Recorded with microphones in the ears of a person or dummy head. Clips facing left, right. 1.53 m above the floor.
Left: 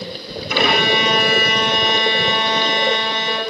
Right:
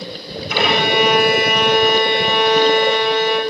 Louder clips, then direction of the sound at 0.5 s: Right 1 dB; 75° left (ahead or behind).